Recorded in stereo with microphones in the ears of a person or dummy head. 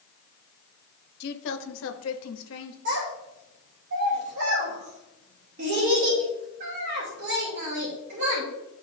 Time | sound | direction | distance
1.2 | a woman speaking | 60° left (ahead or behind) | 1.0 m
2.9 | a child speaking | 60° right (ahead or behind) | 2.5 m